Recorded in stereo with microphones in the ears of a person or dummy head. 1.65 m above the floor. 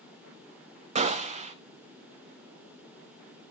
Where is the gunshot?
35° right (ahead or behind), 0.5 m.